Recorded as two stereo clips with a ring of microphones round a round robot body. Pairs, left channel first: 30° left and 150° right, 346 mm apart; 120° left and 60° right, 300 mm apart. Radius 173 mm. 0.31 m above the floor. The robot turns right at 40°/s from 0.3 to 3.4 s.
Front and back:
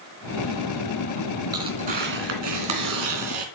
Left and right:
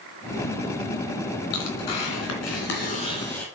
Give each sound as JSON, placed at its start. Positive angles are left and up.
{"t": 1.5, "sound": "tearing paper", "azimuth_deg": 130, "distance_m": 2.5}